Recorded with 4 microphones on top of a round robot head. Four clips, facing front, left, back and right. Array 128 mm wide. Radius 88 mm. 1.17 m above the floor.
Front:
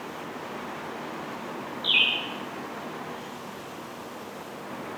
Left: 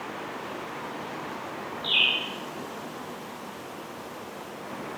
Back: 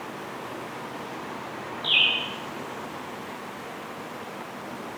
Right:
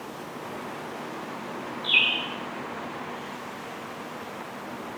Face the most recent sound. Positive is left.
turn(degrees=-60)